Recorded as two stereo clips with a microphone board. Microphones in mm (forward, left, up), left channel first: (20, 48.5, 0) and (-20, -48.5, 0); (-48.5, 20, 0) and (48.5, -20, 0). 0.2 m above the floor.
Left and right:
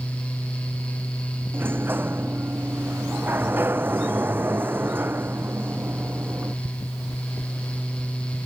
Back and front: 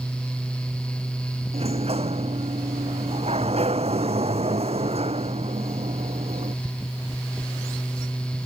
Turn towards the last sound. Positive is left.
turn(degrees=-40)